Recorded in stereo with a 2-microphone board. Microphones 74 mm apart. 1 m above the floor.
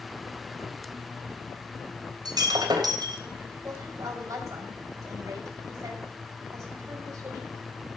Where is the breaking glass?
65° right (ahead or behind), 3 m.